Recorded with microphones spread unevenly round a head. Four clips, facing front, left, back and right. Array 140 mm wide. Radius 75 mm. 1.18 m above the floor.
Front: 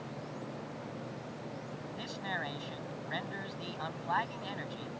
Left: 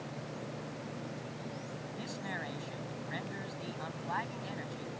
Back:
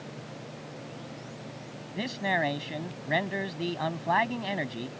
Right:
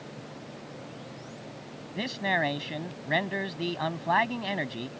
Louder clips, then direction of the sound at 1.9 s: Right 14 dB, back 11 dB; 130° right.